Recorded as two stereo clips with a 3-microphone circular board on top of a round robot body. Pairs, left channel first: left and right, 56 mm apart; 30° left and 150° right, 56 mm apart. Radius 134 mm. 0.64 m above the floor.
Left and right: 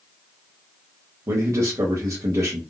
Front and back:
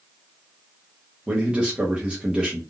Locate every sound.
1.3 s a man speaking: 80° right, 1.0 m